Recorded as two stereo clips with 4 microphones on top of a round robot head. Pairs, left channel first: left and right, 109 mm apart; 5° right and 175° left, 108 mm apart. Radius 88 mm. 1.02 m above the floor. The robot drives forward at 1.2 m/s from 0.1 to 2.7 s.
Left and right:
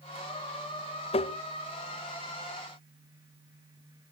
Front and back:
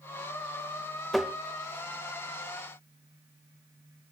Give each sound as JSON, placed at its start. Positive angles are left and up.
{"t": 1.1, "sound": "tapping", "azimuth_deg": 80, "distance_m": 0.9}